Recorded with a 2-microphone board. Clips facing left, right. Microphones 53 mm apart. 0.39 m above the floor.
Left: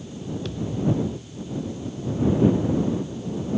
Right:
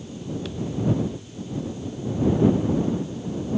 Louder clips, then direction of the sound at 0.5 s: Even; 5° right (ahead or behind).